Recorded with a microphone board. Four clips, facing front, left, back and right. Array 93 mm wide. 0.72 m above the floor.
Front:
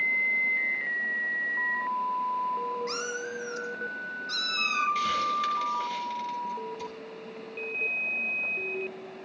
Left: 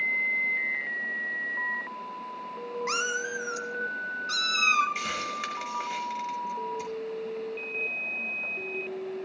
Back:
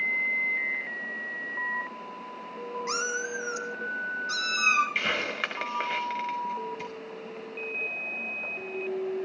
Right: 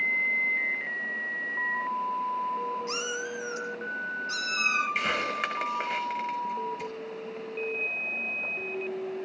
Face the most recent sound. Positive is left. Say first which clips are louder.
# right 3 dB, front 3 dB
turn(degrees=-145)